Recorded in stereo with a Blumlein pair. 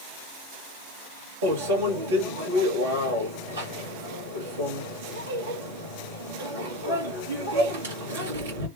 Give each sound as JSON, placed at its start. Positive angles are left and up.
{"t": 1.4, "sound": "a microwave", "azimuth_deg": -65, "distance_m": 1.3}